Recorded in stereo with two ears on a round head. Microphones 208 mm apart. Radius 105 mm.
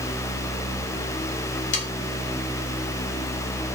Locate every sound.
1.7 s sawing: 55° left (ahead or behind), 2.5 m